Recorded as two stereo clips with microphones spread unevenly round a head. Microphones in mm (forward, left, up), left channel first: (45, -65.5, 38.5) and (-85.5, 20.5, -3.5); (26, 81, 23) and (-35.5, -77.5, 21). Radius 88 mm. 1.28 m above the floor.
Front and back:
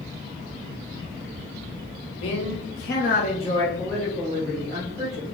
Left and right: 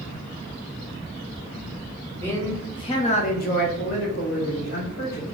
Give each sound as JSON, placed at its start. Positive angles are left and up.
{"t": 2.1, "sound": "a man speaking", "azimuth_deg": -10, "distance_m": 1.3}